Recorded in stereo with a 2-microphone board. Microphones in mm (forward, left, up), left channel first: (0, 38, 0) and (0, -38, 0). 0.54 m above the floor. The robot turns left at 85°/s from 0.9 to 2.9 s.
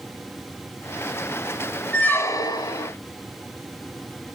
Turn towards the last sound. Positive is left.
turn(degrees=80)